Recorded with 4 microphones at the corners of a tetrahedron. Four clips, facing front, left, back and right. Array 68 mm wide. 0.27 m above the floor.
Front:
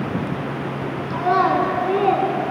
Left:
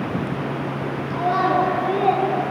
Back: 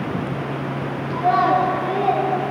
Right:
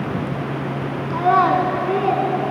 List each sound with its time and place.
1.1 s a child speaking: 80° right, 1.5 m; by 2.3 s 30° right, 2.0 m